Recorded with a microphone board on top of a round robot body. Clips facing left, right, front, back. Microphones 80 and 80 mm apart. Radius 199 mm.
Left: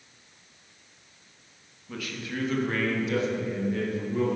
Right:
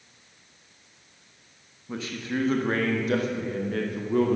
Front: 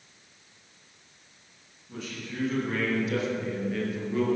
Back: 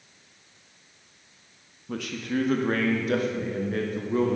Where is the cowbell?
I don't hear a cowbell.